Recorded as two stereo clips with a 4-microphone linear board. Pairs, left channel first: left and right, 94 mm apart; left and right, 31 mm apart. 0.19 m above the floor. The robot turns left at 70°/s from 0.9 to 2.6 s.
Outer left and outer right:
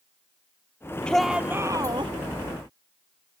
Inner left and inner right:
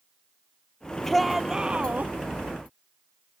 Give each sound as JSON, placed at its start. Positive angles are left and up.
{"t": 1.1, "sound": "a shout", "azimuth_deg": 10}